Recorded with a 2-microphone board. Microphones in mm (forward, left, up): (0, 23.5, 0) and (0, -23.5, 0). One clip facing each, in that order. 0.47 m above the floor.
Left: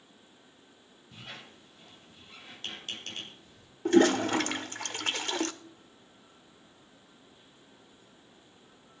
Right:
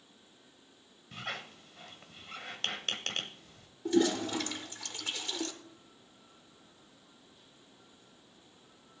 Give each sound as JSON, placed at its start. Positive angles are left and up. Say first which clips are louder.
{"t": 1.1, "sound": "a squeak", "louder": "right 6 dB", "side_deg": -75, "distance_m": 1.2}
{"t": 3.9, "sound": "a toilet flushing", "louder": "left 6 dB", "side_deg": 55, "distance_m": 0.8}